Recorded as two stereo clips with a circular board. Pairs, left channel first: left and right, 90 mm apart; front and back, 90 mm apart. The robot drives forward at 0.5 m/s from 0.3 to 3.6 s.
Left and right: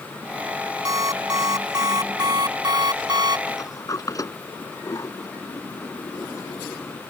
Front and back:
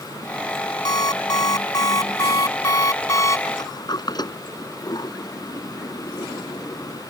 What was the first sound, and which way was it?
An alarm clock, 40° right.